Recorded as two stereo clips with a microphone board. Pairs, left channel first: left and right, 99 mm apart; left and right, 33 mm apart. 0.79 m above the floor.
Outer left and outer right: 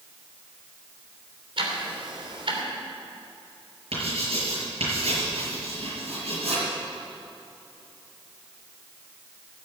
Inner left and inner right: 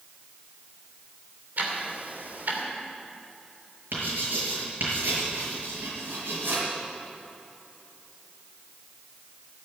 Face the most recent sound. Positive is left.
turn(degrees=-80)